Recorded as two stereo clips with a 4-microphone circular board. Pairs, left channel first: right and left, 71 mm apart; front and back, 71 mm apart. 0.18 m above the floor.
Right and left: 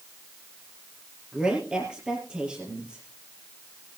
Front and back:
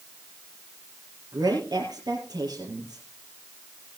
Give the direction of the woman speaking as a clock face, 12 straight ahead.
6 o'clock.